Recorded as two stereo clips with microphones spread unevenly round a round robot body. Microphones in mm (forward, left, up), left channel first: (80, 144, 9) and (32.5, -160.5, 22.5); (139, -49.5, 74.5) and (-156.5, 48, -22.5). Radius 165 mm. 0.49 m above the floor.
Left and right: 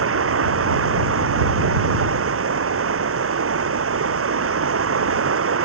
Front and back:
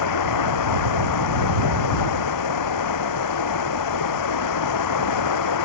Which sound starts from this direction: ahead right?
Running water, at 0.0 s.